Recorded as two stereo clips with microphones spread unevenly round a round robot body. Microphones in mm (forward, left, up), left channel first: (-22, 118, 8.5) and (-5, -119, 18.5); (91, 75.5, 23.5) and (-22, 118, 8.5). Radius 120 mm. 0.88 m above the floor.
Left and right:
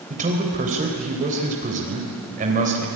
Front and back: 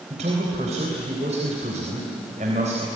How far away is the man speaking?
About 3.5 m.